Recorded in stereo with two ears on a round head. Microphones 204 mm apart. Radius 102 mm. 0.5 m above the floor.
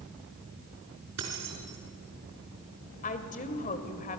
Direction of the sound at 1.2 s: 75° right (ahead or behind).